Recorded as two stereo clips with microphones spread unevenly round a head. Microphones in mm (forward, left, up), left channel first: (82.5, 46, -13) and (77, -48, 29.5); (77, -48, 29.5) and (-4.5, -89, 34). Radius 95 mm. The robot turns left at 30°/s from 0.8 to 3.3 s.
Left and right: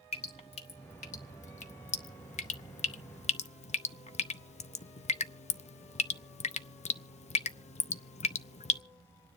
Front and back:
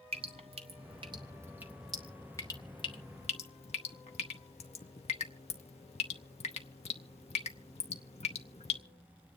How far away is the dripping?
About 0.5 m.